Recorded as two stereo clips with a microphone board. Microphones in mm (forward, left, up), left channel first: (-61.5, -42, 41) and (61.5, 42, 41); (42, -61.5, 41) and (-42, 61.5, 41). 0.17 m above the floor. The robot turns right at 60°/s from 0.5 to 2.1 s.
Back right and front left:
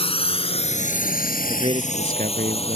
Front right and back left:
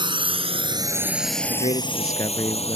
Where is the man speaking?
25° right; by 2.8 s 10° left.